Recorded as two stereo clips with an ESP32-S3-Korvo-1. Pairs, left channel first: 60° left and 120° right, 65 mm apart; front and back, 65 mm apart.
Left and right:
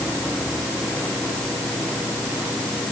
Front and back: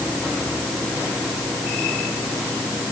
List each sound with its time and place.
Only background noise.